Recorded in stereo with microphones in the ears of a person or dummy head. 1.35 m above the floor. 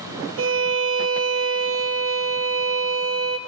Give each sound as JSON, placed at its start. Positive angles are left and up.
{"t": 0.4, "sound": "a violin", "side_deg": -65, "distance_m": 0.6}